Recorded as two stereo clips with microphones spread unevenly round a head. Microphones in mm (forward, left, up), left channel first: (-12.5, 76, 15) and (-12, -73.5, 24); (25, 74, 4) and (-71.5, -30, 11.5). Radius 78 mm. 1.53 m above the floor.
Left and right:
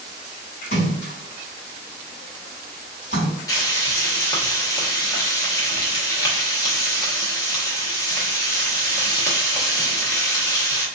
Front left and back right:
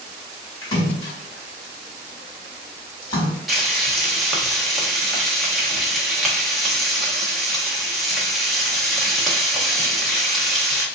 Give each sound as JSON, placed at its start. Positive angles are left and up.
{"t": 0.6, "sound": "a splash", "azimuth_deg": 110, "distance_m": 1.8}
{"t": 3.5, "sound": "frying", "azimuth_deg": 145, "distance_m": 1.0}